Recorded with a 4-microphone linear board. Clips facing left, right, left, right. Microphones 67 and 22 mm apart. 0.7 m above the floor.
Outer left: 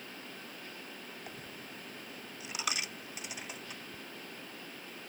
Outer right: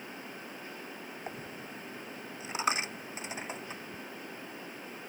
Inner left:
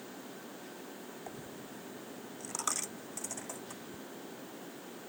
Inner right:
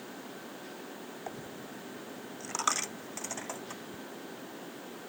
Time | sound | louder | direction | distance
1.3 | a dropped coin | outer right 4 dB, inner right 3 dB | 30° right (ahead or behind) | ?